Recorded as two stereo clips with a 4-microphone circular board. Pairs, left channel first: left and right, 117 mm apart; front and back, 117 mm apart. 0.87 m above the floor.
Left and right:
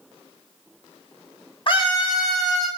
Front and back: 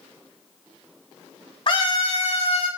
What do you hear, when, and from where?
1.7 s a scream: 45° left, 2.5 m; by 2.7 s 30° left, 3 m